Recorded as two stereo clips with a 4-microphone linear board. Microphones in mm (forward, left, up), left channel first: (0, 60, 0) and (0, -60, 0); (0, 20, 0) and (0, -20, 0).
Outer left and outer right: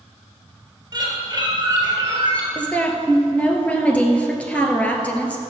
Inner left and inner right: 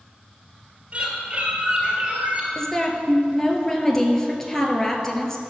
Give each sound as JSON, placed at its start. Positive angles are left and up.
{"t": 0.9, "sound": "a bird", "side_deg": -30, "distance_m": 3.0}
{"t": 2.5, "sound": "a woman speaking", "side_deg": 10, "distance_m": 1.8}